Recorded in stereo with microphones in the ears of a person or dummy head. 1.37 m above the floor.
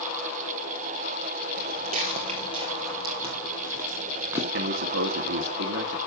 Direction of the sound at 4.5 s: 70° right (ahead or behind).